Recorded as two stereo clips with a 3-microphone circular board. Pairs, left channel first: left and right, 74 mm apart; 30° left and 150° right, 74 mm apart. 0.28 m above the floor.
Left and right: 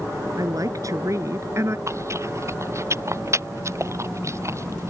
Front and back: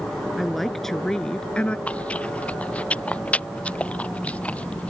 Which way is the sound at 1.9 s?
40° right.